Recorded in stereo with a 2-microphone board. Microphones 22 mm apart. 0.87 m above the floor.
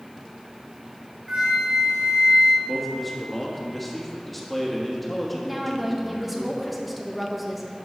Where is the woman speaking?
5° right (ahead or behind), 0.9 m.